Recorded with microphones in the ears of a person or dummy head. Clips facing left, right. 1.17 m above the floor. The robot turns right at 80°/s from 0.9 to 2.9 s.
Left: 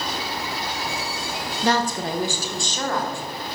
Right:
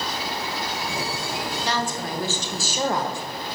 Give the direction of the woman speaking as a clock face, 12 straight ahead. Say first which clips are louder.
Left 8 dB; 8 o'clock.